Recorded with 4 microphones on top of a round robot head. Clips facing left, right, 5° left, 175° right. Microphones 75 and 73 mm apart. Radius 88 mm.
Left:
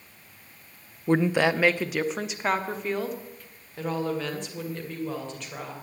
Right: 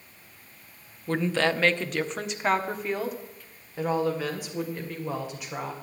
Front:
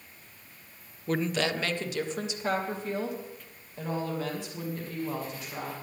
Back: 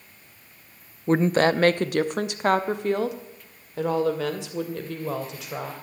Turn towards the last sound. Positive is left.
turn(degrees=-170)